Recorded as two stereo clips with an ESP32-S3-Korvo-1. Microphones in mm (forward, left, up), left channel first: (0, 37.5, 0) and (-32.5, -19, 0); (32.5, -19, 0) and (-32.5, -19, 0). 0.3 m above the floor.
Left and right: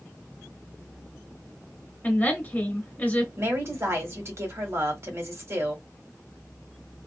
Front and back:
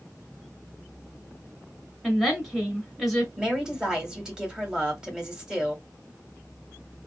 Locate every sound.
2.0 s a woman speaking: 90° left, 1.6 m
3.4 s a woman speaking: 105° right, 1.3 m